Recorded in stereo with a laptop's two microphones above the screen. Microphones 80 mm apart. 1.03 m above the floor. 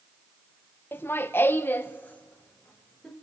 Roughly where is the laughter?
Left.